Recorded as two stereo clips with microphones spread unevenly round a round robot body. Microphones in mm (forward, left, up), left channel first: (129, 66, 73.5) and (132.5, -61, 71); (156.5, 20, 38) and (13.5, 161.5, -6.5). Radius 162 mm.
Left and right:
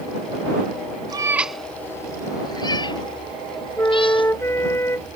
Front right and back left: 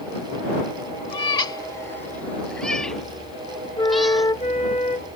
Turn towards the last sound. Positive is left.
turn(degrees=25)